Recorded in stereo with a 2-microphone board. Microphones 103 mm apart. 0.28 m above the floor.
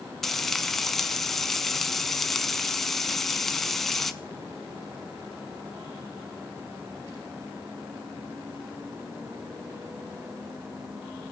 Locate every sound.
0.2 s frying: 5° left (ahead or behind), 0.7 m